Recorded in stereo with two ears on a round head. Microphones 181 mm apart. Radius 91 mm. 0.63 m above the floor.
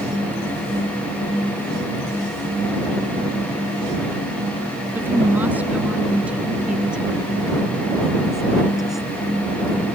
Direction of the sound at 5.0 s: 10° right (ahead or behind).